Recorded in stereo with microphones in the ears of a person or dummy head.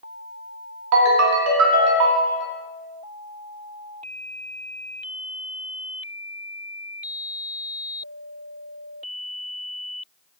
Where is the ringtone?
65° right (ahead or behind), 0.6 m.